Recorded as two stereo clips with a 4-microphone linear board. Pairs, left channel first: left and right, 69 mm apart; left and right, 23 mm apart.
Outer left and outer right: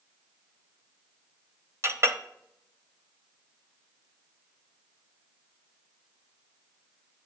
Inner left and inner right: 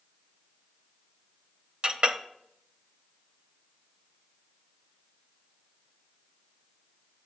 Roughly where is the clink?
Right.